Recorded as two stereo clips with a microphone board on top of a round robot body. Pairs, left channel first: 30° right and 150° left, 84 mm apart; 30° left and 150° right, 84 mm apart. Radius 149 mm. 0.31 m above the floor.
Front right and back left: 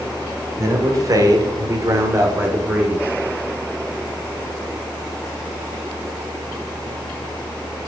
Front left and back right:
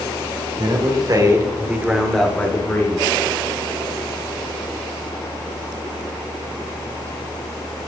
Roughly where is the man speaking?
Behind.